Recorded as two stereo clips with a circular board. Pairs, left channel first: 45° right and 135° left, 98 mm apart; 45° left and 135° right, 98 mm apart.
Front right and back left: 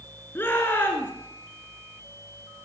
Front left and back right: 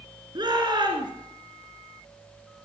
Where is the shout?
110° right, 2 m.